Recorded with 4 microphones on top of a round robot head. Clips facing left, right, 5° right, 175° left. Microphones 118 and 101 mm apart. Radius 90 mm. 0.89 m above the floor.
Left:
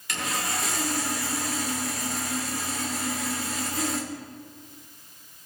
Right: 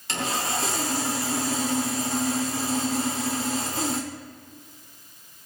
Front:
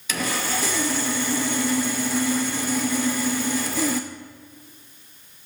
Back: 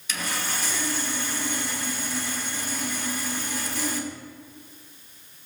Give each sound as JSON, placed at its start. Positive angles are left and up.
{"t": 0.1, "sound": "sawing", "azimuth_deg": -20, "distance_m": 0.7}